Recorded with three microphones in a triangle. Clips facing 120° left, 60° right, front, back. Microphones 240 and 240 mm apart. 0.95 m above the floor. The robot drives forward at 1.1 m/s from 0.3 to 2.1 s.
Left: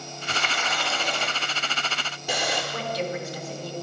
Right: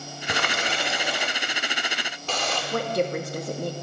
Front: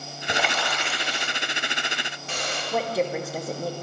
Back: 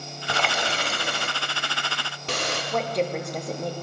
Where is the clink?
I don't hear a clink.